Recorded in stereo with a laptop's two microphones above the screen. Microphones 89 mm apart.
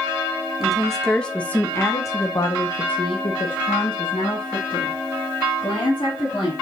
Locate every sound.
0.6 s a woman speaking: centre (ahead or behind), 1.3 m; by 6.5 s 55° left (ahead or behind), 2.5 m